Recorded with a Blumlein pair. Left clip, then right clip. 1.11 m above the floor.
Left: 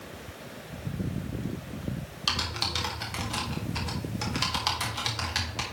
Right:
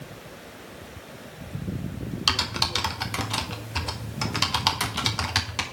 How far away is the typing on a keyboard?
About 1.1 m.